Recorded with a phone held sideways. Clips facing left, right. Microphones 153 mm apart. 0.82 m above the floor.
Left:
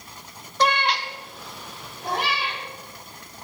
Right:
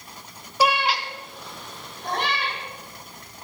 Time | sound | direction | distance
0.6 | a cat meowing | 10° right (ahead or behind) | 0.6 m